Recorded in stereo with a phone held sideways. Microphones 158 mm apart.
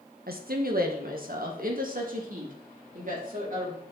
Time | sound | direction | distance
0.3 | a woman speaking | 70° right (ahead or behind) | 1.0 m